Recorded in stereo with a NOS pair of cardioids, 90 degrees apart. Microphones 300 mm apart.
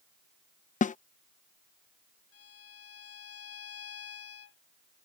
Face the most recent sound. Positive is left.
turn(degrees=50)